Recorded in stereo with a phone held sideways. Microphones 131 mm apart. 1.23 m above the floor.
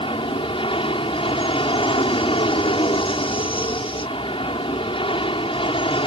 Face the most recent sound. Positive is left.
turn(degrees=45)  # may be behind; listen again after turning